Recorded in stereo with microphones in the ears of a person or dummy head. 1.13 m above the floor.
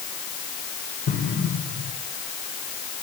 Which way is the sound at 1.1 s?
65° left (ahead or behind).